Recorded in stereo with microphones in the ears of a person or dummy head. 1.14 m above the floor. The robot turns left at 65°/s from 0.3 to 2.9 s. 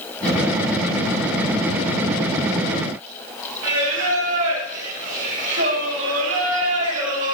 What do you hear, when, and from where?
3.6 s singing: 45° right (ahead or behind), 4.5 m